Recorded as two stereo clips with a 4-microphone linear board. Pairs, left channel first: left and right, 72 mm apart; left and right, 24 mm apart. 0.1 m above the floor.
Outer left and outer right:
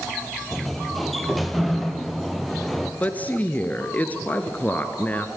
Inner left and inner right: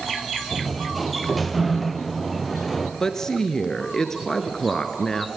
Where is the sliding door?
Centre (ahead or behind), 1.2 m.